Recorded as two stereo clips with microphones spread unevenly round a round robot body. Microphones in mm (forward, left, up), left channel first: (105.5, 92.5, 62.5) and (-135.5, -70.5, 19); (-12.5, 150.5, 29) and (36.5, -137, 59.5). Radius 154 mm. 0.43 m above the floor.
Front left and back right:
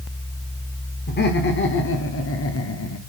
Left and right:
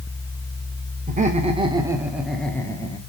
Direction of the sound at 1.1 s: 20° right.